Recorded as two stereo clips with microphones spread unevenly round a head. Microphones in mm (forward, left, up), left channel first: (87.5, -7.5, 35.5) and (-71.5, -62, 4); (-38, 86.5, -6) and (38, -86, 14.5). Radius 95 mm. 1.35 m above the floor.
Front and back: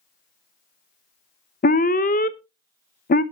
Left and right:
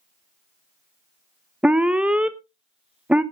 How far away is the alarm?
About 0.7 m.